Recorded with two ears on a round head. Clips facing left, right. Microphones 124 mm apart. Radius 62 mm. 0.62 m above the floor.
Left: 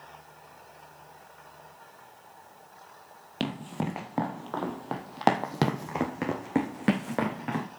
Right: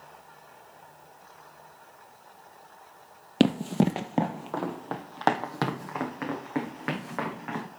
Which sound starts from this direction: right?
Running footsteps, at 3.4 s.